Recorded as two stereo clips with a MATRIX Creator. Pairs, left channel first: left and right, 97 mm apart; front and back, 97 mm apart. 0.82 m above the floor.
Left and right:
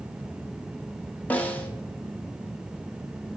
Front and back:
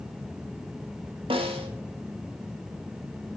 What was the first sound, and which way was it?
A snare drum, 165° left.